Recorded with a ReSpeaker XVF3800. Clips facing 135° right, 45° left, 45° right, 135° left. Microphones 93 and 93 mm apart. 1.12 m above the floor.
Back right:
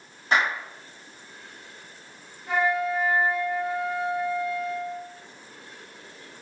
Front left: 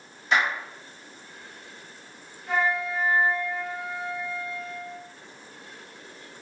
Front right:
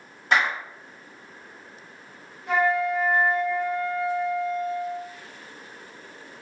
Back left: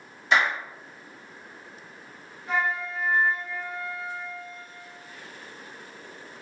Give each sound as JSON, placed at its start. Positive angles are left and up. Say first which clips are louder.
{"t": 0.3, "sound": "a clap", "louder": "back right 1 dB, even", "azimuth_deg": -85, "distance_m": 1.3}
{"t": 2.5, "sound": "a flute", "louder": "back right 2 dB, front right 6 dB", "azimuth_deg": -55, "distance_m": 0.7}